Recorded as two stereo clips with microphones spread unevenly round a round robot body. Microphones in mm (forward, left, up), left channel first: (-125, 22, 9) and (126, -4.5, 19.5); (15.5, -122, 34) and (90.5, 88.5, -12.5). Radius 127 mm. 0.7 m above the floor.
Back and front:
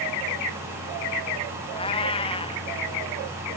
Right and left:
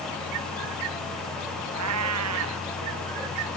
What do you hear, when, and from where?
1.7 s a cat meowing: 105° left